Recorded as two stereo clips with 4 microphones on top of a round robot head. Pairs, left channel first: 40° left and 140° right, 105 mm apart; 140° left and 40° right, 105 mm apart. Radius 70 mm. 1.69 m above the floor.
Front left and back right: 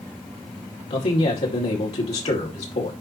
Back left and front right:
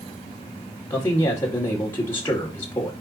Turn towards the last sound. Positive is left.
turn(degrees=70)